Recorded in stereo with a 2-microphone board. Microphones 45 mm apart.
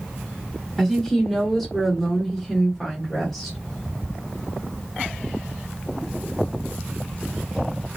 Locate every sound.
0.8 s a woman speaking: 5° left (ahead or behind), 1.2 m